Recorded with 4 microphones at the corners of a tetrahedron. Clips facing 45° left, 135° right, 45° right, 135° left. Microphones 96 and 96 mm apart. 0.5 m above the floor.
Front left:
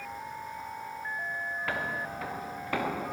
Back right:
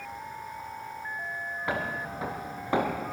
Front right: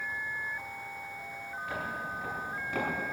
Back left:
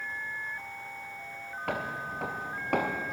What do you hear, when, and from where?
1.7 s footsteps: 155° left, 4 m; by 3.1 s 160° left, 5 m